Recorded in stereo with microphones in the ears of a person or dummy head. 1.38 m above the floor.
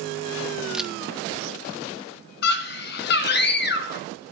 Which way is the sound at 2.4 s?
60° left (ahead or behind).